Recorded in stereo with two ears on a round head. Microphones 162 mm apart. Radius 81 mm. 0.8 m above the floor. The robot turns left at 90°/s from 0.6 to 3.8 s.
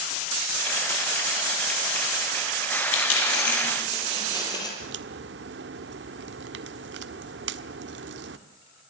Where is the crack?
65° right (ahead or behind), 1.4 m.